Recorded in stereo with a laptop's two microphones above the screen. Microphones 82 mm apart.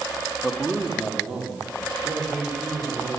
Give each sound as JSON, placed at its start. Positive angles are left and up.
{"t": 0.4, "sound": "a man speaking", "side_deg": 0, "distance_m": 1.6}